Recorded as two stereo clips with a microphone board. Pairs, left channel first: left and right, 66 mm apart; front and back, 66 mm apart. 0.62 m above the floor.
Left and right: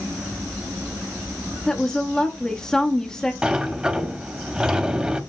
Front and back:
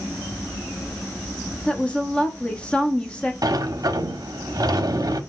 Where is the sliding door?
165° right, 0.7 m.